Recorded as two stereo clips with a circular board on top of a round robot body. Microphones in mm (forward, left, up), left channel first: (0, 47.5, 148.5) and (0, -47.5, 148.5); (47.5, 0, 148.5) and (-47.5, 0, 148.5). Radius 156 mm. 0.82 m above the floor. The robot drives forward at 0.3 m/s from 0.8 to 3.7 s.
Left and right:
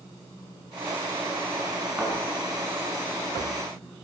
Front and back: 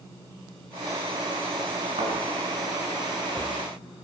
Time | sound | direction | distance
2.0 | a thud | straight behind | 5 m